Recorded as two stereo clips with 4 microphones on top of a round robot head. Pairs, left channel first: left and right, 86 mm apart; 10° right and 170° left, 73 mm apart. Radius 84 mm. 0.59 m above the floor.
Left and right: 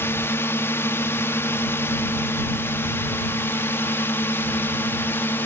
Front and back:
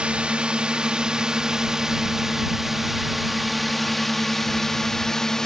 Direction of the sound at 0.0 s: 110° left.